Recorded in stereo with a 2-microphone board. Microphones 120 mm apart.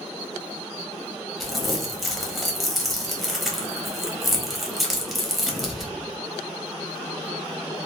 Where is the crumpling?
Centre (ahead or behind), 0.8 m.